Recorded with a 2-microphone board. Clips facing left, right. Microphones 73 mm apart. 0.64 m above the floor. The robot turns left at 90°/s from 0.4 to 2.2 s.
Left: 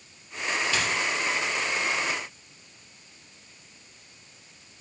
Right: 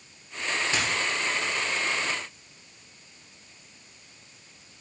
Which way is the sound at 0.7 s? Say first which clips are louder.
Even; 30° right (ahead or behind).